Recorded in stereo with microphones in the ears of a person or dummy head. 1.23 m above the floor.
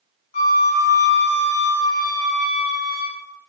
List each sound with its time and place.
0.3 s a flute: 40° left (ahead or behind), 1.8 m